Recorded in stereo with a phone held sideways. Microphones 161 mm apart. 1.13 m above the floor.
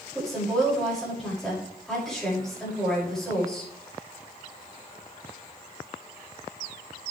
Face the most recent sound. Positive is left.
turn(degrees=0)  # may be behind; listen again after turning